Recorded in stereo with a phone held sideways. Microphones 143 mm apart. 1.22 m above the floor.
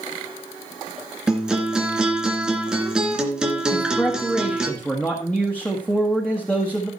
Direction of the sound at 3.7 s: 10° left (ahead or behind).